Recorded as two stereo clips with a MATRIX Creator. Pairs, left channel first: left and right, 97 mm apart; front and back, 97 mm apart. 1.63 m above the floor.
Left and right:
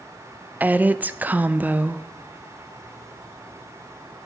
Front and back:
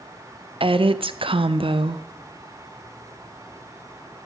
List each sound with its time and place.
0.6 s a woman speaking: 160° right, 0.6 m